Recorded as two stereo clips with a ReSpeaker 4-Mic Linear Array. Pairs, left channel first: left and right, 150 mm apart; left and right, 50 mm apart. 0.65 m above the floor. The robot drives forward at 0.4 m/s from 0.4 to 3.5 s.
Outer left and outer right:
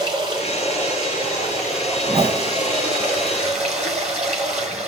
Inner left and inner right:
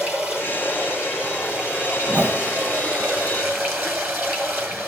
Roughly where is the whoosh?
Right.